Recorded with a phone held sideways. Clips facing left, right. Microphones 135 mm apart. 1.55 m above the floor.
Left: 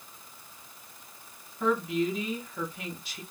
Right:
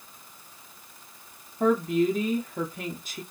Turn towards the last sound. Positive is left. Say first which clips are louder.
# right 5 dB
turn(degrees=-45)  # may be behind; listen again after turning